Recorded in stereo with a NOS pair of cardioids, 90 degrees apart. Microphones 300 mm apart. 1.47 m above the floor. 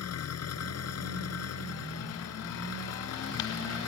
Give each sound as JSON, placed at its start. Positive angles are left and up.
{"t": 0.0, "sound": "an engine running", "azimuth_deg": 55}